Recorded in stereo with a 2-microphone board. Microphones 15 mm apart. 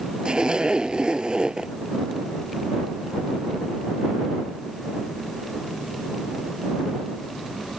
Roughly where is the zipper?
Right.